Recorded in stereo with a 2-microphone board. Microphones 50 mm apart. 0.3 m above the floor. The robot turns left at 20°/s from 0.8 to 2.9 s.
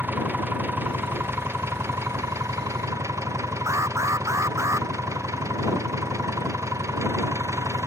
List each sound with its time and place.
0.0 s an engine running: 40° right; by 7.9 s 85° right
3.7 s an alarm: 85° right